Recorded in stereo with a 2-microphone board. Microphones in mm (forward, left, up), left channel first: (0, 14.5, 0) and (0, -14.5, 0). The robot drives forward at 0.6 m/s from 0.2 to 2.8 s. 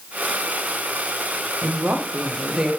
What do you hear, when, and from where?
1.6 s a woman speaking: 65° right (ahead or behind), 0.7 m; by 2.7 s 35° right (ahead or behind), 1.2 m